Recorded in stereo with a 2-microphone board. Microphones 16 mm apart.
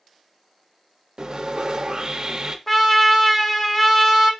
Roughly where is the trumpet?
Centre.